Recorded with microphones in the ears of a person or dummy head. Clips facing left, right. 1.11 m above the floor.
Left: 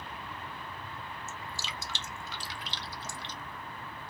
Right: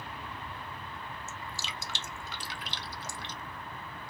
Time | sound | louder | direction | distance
1.3 | dripping | even | 50° right (ahead or behind) | 0.6 m